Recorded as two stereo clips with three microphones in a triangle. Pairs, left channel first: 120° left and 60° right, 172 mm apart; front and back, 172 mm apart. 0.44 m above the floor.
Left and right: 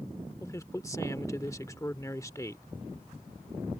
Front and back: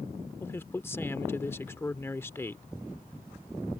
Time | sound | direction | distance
0.4 | a man speaking | 65° left | ?